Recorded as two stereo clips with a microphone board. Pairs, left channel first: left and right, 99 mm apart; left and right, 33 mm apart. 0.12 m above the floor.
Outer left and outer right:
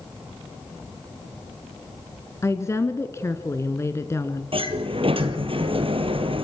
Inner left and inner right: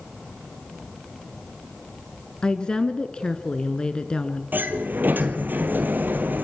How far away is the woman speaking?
About 1.1 m.